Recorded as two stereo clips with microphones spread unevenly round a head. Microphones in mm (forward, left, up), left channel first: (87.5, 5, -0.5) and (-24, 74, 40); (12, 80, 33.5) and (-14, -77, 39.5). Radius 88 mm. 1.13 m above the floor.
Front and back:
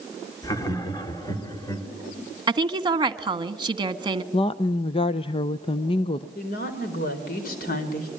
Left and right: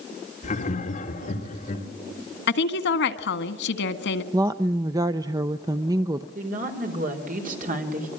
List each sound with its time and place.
0.4 s laughter: 30° left, 3 m
2.5 s a woman speaking: 90° left, 1.7 m
4.3 s a woman speaking: 35° right, 0.7 m
6.3 s a woman speaking: 60° right, 4 m